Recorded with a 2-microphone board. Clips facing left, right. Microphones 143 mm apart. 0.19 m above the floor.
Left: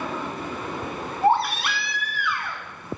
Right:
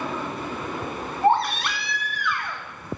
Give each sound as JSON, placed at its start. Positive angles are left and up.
{"t": 1.2, "sound": "a baby crying", "side_deg": 5, "distance_m": 1.4}